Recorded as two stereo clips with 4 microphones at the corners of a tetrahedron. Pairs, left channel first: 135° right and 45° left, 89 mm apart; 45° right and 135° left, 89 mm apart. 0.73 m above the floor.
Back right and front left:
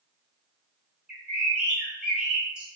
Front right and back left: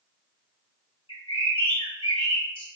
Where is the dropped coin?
No dropped coin in this recording.